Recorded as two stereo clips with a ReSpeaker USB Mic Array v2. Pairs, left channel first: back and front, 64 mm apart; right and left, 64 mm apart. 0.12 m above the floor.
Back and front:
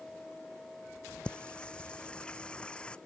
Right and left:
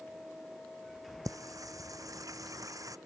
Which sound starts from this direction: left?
Singing, at 1.2 s.